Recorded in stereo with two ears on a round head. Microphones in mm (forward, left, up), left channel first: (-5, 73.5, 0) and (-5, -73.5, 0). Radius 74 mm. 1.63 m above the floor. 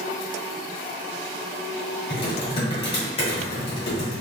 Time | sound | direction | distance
2.1 | typing on a keyboard | 35° left (ahead or behind) | 1.7 m